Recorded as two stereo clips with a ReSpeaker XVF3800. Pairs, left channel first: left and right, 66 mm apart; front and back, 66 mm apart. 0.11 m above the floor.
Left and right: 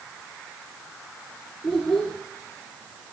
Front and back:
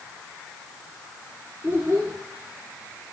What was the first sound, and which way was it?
A child speaking, 170° left.